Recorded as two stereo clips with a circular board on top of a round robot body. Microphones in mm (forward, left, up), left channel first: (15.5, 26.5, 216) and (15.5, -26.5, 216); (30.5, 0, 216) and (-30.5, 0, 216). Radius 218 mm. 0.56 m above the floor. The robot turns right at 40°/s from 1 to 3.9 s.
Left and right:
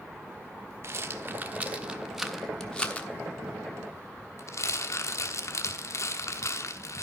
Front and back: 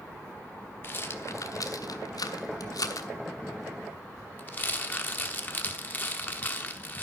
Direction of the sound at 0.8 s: 55° right.